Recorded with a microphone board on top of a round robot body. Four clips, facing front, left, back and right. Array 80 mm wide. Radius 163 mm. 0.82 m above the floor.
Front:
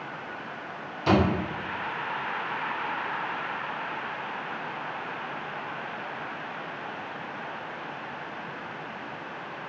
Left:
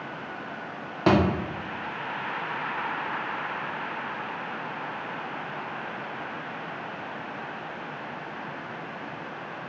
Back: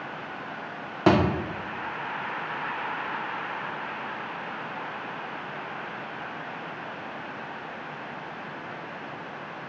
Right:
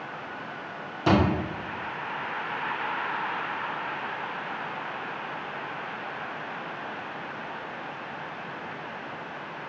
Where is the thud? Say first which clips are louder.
Left 1 dB, back 2 dB; 150° left, 0.9 m.